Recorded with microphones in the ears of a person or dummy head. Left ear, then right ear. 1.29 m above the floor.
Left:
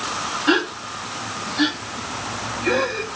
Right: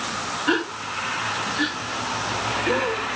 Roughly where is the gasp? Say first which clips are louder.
Left 4 dB; centre.